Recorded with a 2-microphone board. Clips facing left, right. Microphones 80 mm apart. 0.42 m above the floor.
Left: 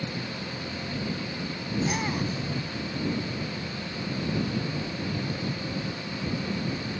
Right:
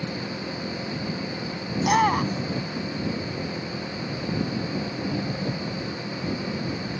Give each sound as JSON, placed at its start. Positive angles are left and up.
{"t": 0.0, "sound": "an engine running", "side_deg": -50}
{"t": 1.8, "sound": "a shout", "side_deg": -85}